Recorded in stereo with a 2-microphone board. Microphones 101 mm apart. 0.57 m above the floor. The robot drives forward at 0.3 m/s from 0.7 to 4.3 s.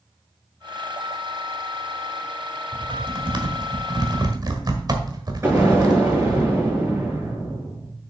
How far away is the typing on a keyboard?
About 1.2 m.